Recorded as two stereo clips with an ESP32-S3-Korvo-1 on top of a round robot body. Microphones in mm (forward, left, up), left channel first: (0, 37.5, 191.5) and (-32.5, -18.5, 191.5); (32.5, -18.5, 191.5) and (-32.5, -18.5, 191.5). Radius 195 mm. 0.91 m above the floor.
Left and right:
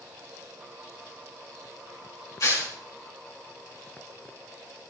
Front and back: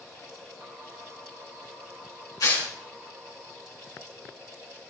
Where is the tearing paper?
25° left, 4.5 m.